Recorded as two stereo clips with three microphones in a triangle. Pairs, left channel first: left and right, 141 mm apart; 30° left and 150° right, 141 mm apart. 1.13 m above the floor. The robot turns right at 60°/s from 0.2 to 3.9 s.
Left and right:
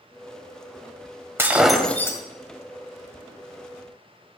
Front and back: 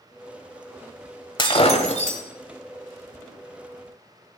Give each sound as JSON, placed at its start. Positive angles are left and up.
{"t": 1.4, "sound": "breaking glass", "azimuth_deg": -20, "distance_m": 1.6}